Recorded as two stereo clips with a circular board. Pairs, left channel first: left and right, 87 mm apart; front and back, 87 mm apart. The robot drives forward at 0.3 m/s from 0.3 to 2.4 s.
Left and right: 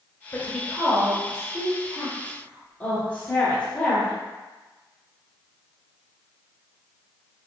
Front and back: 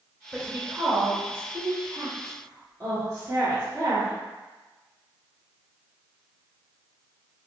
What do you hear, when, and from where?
0.3 s a woman speaking: 120° left, 1.1 m; by 4.1 s 150° left, 1.4 m